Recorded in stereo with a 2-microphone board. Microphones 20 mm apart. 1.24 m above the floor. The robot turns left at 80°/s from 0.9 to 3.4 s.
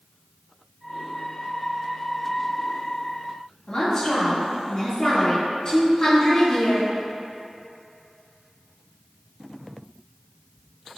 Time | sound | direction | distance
3.7 | a woman speaking | 40° left (ahead or behind) | 1.8 m